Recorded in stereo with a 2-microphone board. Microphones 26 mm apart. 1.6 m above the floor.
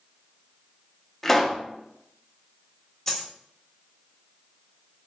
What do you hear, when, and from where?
1.2 s a pop: 15° left (ahead or behind), 0.7 m
3.1 s a dropped coin: 20° left (ahead or behind), 1.0 m